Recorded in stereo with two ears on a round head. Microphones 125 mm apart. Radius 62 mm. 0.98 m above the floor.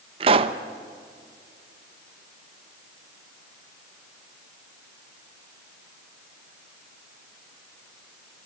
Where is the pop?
40° right (ahead or behind), 0.8 m.